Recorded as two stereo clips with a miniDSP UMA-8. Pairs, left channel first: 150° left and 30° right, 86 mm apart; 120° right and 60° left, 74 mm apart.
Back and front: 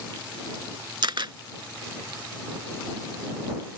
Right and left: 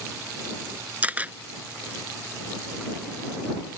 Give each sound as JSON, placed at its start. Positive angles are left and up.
{"t": 1.0, "sound": "a camera shutter", "azimuth_deg": -5}